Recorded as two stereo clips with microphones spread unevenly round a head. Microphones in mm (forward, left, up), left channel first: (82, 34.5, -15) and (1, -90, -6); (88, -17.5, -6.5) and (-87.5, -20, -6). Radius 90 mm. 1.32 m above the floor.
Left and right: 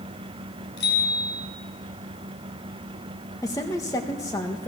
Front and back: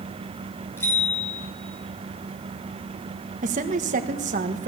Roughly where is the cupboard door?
No cupboard door in this recording.